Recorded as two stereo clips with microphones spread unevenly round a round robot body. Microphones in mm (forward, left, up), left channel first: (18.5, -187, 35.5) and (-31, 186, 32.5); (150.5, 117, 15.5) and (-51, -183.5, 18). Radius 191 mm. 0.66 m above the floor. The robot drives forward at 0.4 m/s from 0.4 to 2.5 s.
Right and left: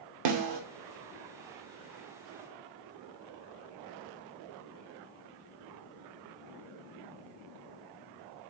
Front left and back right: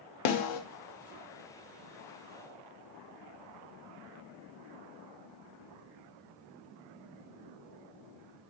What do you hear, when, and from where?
0.2 s a snare drum: 55° left, 0.8 m; by 0.6 s 60° left, 0.7 m